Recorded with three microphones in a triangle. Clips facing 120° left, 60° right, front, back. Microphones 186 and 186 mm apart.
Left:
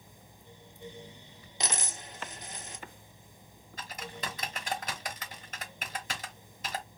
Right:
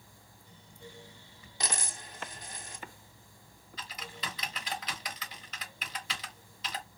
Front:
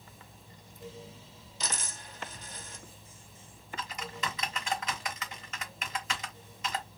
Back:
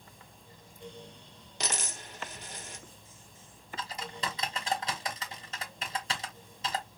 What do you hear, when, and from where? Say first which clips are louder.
1.6 s a dropped coin: left 2 dB, back 3 dB; 170° right, 0.8 m
3.8 s typing on a keyboard: left 4 dB, even; 135° left, 0.9 m